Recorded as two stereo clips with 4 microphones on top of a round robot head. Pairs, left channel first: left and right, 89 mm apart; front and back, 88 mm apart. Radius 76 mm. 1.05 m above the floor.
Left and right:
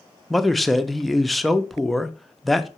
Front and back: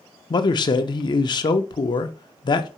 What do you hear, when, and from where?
0.3 s a man speaking: straight ahead, 0.6 m